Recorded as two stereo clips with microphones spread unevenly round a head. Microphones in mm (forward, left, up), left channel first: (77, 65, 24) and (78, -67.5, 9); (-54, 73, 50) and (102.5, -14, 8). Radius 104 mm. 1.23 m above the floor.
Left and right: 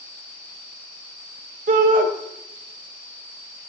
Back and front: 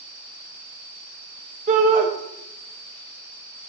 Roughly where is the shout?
Right.